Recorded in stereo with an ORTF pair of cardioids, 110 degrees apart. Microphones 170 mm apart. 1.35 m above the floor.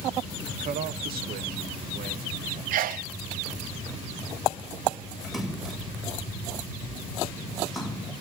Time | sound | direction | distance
0.5 | a man speaking | 55° right | 1.2 m
2.7 | a sneeze | 60° right | 0.8 m
5.2 | a splash | straight ahead | 6 m